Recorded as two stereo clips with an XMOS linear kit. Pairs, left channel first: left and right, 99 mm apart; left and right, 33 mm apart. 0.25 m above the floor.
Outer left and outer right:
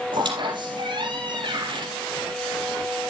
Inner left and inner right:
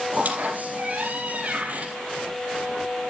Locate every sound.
0.1 s a squeak: 55° right (ahead or behind), 4.5 m